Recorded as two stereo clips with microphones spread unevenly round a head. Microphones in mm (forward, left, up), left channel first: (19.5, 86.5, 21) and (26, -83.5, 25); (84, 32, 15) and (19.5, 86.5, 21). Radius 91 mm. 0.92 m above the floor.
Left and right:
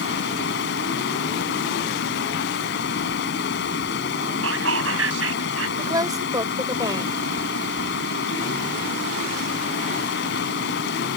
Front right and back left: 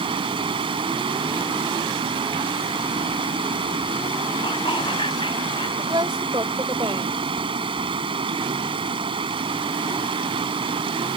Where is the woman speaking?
160° right.